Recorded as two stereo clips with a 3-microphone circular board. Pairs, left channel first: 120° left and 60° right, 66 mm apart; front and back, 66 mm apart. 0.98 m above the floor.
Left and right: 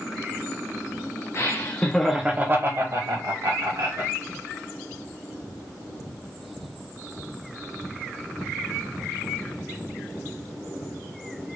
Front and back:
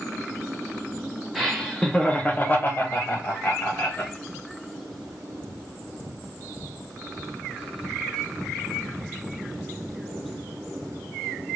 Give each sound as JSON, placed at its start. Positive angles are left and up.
{"t": 1.4, "sound": "laughter", "azimuth_deg": 95, "distance_m": 0.9}